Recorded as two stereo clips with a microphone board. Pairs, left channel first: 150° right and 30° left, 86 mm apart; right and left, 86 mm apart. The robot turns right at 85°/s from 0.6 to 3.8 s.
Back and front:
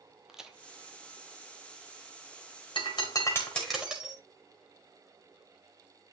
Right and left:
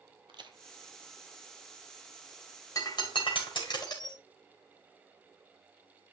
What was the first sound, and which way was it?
A crack, 115° left.